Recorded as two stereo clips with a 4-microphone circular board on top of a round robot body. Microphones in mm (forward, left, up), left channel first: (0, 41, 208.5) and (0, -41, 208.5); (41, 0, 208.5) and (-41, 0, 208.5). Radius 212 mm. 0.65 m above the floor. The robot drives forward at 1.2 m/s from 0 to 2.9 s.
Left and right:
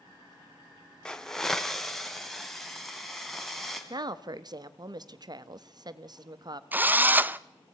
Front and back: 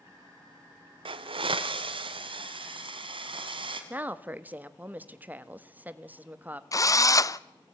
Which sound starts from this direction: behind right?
A woman speaking, at 3.9 s.